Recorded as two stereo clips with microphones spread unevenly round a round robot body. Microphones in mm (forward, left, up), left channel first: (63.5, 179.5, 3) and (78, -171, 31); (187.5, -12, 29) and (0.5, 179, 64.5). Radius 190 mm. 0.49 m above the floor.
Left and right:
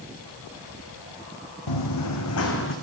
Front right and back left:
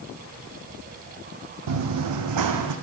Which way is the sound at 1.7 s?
130° left.